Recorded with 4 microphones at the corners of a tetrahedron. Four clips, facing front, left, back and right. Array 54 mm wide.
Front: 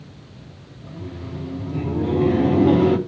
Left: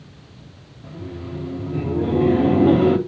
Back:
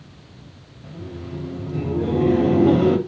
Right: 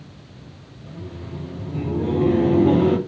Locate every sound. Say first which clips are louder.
0.8 s laughter: left 3 dB, even; 105° left, 1.1 m